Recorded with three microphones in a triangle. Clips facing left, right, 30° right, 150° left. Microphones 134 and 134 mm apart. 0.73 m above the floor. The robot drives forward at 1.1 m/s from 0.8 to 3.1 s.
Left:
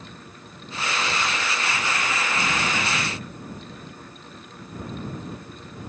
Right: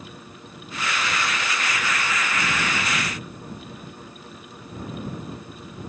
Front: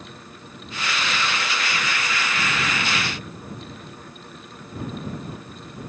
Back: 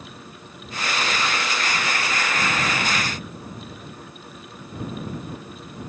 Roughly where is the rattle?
I don't hear a rattle.